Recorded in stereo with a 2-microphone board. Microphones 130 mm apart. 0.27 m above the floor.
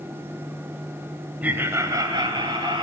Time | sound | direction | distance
1.4 | laughter | 15° right (ahead or behind) | 1.0 m